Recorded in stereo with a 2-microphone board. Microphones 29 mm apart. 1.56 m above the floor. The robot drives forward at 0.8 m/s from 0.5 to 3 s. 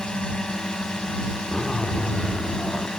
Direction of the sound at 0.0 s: 35° left (ahead or behind).